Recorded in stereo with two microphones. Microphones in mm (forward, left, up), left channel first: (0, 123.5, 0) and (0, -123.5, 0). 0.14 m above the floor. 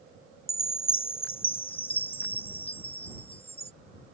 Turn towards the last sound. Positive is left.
turn(degrees=20)  # may be behind; listen again after turning